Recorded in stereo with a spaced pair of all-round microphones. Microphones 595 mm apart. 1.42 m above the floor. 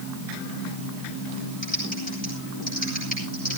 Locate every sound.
1.6 s typing on a keyboard: 15° left (ahead or behind), 7.5 m